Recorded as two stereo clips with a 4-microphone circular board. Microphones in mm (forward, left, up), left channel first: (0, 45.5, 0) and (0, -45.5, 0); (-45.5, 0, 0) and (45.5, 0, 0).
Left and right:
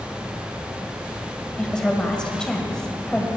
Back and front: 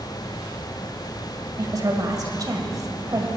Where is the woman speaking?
15° left, 1.7 m.